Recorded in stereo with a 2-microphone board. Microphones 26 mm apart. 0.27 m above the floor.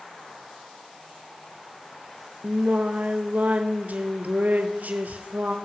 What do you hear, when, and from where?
2.4 s singing: 75° right (ahead or behind), 1.0 m